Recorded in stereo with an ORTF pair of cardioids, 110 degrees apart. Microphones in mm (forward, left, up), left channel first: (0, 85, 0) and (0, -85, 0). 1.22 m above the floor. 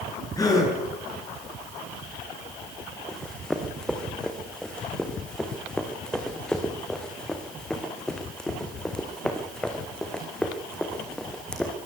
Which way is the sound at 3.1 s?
5° left.